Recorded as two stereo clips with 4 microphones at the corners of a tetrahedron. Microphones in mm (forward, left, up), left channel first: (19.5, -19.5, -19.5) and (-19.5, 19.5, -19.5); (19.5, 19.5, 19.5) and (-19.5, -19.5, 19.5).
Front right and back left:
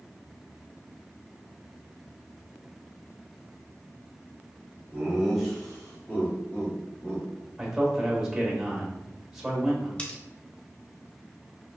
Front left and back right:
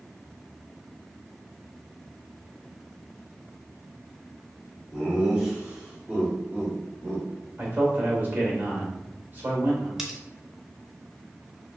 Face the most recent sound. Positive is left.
turn(degrees=-70)